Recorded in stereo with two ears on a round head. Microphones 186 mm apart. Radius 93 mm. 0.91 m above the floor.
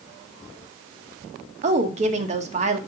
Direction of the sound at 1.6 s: 35° right (ahead or behind).